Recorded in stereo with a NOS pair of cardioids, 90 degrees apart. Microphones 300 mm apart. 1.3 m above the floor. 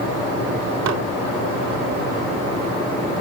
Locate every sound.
0.9 s dishes clattering: 65° right